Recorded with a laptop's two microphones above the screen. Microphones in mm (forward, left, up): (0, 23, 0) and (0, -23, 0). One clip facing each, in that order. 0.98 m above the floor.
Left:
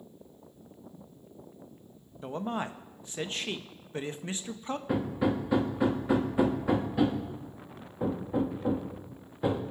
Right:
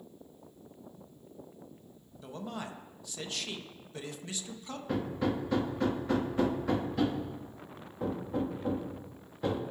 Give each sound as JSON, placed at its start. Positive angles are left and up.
{"t": 2.2, "sound": "a man speaking", "side_deg": 35, "distance_m": 0.6}
{"t": 4.9, "sound": "hammering", "side_deg": 15, "distance_m": 1.3}